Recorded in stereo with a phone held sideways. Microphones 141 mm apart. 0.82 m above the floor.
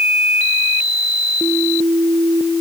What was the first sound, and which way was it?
Only background noise.